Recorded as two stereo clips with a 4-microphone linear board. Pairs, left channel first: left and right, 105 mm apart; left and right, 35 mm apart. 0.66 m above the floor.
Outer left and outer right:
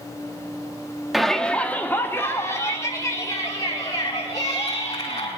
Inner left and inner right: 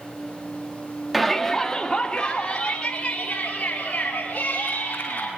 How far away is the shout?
About 1.2 m.